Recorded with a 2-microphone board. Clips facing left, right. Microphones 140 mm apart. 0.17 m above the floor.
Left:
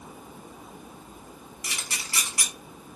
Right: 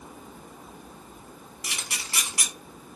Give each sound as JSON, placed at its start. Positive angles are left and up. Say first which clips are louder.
{"t": 1.6, "sound": "a camera shutter", "louder": "even", "side_deg": -20, "distance_m": 1.0}